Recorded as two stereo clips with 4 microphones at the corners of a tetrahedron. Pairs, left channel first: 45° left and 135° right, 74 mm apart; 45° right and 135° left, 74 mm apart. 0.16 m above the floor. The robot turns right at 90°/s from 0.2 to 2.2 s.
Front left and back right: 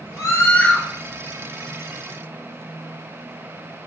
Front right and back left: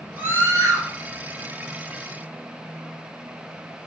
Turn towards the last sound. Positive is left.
turn(degrees=-105)